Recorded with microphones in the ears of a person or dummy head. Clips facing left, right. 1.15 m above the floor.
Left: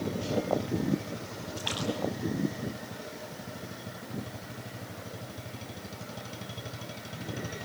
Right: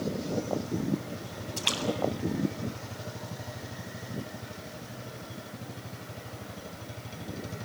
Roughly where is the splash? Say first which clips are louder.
Right 2 dB; right.